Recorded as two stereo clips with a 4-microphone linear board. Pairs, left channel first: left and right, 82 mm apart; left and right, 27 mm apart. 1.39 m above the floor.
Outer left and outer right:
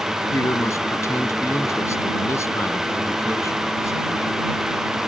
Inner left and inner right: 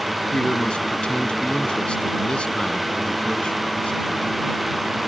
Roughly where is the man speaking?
Left.